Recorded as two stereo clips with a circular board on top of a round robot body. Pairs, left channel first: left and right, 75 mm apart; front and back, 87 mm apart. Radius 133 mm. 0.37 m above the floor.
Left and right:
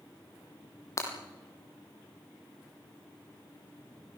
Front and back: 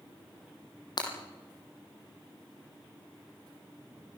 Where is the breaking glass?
40° left, 4.5 m.